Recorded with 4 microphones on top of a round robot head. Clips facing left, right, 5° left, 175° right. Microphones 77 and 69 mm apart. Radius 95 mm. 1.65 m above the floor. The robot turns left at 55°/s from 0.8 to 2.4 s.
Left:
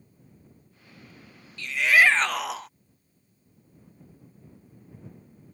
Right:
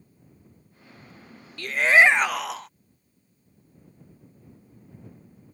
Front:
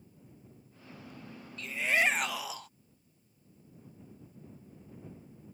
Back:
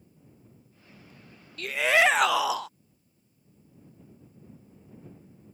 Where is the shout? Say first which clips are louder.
Right 3 dB, back 7 dB; 135° right; by 2.7 s straight behind.